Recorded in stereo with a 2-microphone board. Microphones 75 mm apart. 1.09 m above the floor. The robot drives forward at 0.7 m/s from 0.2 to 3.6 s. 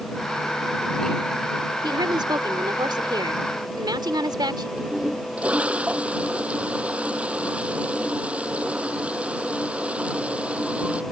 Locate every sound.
1.8 s a woman speaking: 85° right; by 4.7 s 75° right (ahead or behind)
4.8 s a toilet flushing: 15° right (ahead or behind)